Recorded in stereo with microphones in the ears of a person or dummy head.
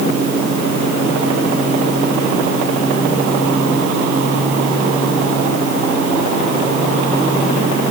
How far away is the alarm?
I don't hear an alarm.